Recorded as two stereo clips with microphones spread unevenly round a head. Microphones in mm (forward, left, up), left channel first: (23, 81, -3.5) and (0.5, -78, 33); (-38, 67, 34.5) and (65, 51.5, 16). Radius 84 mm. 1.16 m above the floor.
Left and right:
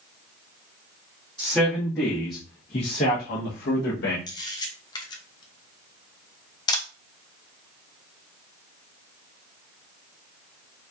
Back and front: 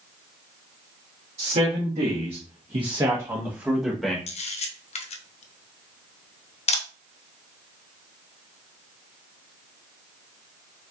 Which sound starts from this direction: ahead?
A man speaking, at 1.4 s.